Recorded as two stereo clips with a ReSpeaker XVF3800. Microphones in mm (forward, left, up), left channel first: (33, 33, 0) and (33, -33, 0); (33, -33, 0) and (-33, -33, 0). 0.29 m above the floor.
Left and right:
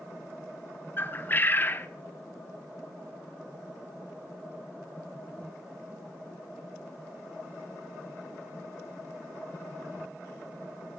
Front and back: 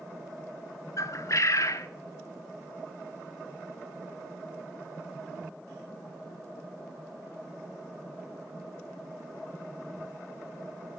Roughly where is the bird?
Ahead left.